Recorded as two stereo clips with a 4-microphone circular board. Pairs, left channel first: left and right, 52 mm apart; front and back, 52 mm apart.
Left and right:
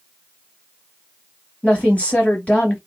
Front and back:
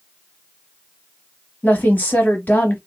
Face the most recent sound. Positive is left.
turn(degrees=35)